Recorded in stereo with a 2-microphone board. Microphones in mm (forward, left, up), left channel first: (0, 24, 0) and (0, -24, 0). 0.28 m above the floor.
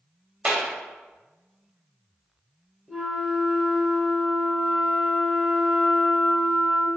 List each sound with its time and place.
0.5 s a clap: 25° right (ahead or behind), 0.8 m
2.9 s a flute: 5° right (ahead or behind), 0.8 m